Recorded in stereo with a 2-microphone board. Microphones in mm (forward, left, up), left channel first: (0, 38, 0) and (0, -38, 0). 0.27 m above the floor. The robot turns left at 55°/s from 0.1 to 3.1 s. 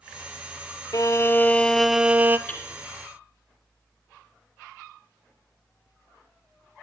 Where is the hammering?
35° left (ahead or behind), 3.5 m; by 2.7 s 25° left (ahead or behind), 3.5 m.